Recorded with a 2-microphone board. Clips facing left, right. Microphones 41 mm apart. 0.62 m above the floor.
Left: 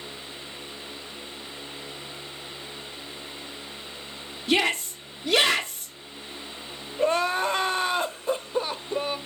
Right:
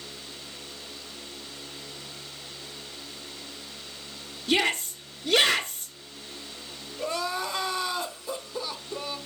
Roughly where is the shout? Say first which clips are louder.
Left 1 dB; centre.